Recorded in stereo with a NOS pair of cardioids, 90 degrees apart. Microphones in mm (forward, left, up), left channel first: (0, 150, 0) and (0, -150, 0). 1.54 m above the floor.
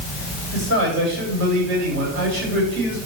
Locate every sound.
0.5 s a man speaking: 70° right, 9.5 m